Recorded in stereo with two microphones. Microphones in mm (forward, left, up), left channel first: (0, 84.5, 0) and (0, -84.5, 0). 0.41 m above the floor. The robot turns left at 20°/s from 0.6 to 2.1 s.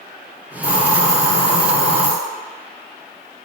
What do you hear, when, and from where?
0.6 s a hiss: 50° left (ahead or behind), 4.5 m; by 2.1 s 20° left (ahead or behind), 4.5 m